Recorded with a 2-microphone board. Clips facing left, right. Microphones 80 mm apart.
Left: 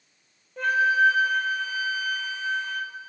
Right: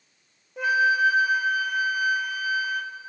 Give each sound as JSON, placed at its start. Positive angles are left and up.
{"t": 0.6, "sound": "a flute", "side_deg": -5, "distance_m": 0.5}